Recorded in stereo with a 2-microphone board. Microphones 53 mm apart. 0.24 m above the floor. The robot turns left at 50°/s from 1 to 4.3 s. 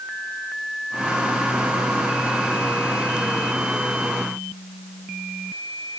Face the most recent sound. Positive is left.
No sound to turn to.